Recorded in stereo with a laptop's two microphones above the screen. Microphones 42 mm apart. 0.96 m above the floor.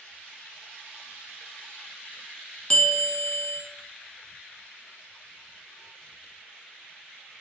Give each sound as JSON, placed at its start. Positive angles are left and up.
{"t": 2.7, "sound": "a bell", "side_deg": 20, "distance_m": 0.7}